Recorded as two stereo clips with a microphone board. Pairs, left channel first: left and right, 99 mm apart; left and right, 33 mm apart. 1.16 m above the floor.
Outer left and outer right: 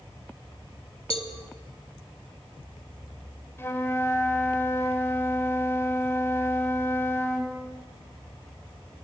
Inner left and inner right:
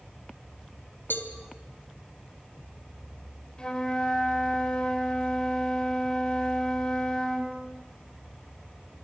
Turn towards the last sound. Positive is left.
turn(degrees=25)  # may be behind; listen again after turning